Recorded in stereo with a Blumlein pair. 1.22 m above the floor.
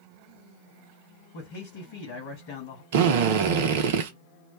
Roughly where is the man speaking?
Ahead left.